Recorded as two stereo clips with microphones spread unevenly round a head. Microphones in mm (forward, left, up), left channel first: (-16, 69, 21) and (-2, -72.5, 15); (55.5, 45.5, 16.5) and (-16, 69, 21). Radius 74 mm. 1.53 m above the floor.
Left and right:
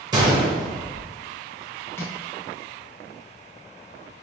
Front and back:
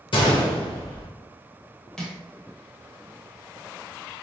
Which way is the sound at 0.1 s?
20° right.